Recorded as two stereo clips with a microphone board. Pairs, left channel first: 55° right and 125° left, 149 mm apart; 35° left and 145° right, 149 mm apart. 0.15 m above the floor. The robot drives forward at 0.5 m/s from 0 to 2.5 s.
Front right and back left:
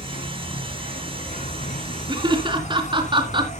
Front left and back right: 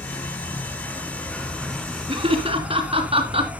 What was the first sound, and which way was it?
An insect, 35° right.